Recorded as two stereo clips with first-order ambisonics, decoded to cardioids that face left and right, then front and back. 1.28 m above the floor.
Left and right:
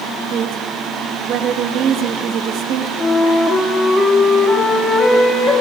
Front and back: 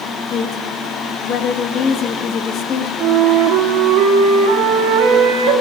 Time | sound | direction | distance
0.3 | a woman speaking | 50° right | 1.4 m
3.0 | a flute | 170° left | 2.5 m